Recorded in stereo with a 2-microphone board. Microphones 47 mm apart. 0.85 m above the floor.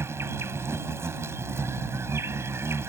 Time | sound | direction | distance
0.0 | an insect | 80° right | ?